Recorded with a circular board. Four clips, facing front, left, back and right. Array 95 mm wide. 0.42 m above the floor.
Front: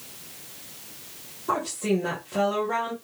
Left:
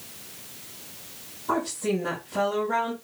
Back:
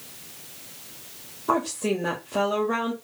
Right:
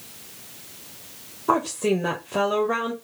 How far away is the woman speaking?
About 1.6 m.